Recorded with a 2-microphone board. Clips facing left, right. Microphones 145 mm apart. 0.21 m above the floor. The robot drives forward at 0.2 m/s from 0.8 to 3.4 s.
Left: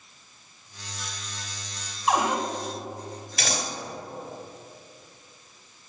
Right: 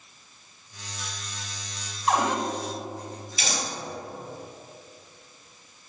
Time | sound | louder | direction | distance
2.1 | a cupboard door | even | 5° left (ahead or behind) | 0.9 m
3.4 | scissors | left 2 dB | 70° left (ahead or behind) | 1.5 m